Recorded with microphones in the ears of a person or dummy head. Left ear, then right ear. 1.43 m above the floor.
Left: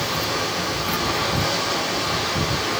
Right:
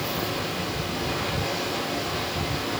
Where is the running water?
45° left (ahead or behind), 9.5 m.